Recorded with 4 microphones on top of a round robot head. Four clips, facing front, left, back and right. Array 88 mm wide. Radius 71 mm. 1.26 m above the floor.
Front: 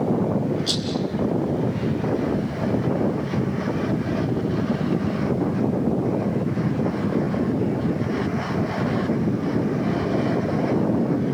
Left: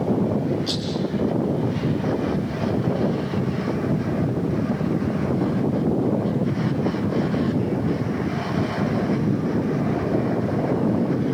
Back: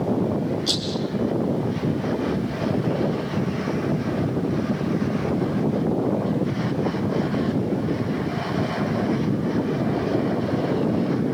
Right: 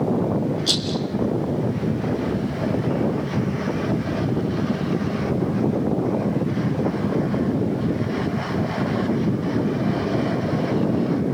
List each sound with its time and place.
0.7 s a rattle: 95° right, 6.5 m